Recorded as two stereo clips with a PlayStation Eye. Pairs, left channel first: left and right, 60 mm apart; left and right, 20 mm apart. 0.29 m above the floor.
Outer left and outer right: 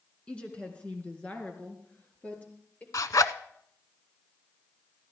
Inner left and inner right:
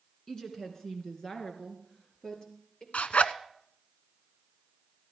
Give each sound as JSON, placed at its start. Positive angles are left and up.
{"t": 0.3, "sound": "a woman speaking", "side_deg": 20, "distance_m": 2.5}
{"t": 2.9, "sound": "a zipper", "side_deg": 80, "distance_m": 0.6}